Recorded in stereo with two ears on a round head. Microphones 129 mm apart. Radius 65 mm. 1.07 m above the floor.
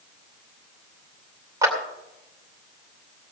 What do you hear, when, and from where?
1.6 s a clap: 25° right (ahead or behind), 2.5 m